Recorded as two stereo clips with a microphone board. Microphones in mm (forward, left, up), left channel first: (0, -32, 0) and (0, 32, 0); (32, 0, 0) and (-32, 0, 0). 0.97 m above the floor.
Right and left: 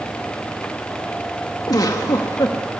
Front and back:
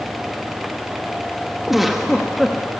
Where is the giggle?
90° right, 1.6 m.